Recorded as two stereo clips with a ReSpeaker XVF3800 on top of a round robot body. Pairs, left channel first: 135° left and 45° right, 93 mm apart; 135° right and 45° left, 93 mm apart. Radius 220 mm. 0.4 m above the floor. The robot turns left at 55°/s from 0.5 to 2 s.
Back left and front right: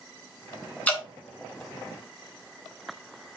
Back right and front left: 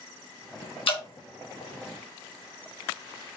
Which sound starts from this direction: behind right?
Dripping, at 0.9 s.